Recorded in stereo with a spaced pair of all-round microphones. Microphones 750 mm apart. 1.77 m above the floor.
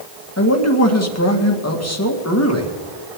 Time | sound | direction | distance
0.4 | a man speaking | 20° left (ahead or behind) | 2 m